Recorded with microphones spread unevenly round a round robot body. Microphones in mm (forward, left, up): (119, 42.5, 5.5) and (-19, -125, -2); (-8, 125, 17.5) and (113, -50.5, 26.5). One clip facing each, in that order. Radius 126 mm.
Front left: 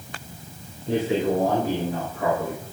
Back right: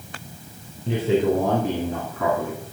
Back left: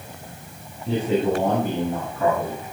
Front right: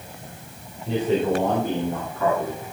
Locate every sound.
0.9 s a man speaking: 145° right, 2.5 m; by 2.6 s 170° right, 3 m